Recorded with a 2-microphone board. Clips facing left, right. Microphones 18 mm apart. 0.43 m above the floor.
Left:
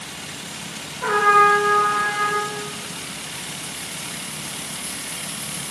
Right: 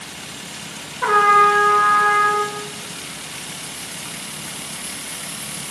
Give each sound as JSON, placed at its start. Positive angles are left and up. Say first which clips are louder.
{"t": 1.0, "sound": "a trumpet", "louder": "right 2 dB", "side_deg": -50, "distance_m": 1.5}